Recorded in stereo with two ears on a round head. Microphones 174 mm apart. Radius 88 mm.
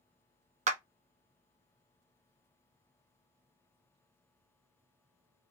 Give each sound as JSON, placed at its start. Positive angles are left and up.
{"t": 0.7, "sound": "a clap", "side_deg": -40, "distance_m": 0.7}